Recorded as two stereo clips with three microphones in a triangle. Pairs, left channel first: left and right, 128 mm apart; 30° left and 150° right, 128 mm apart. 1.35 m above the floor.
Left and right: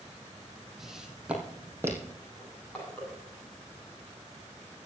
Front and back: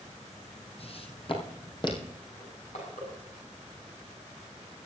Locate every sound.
0.8 s footsteps: straight ahead, 3 m; by 2.1 s 25° right, 3 m
2.4 s crushing: 10° left, 8.5 m